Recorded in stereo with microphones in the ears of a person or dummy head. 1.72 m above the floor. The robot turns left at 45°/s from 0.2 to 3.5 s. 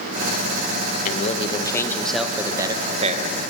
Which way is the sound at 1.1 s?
45° left.